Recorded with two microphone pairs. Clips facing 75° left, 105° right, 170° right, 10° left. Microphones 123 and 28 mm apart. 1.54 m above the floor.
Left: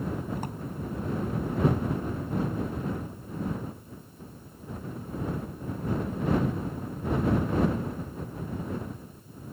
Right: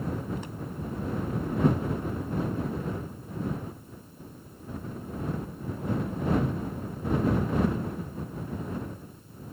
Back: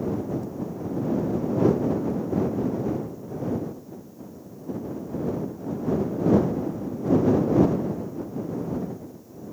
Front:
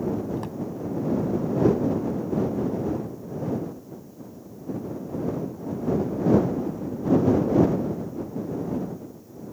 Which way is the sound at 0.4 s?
35° left.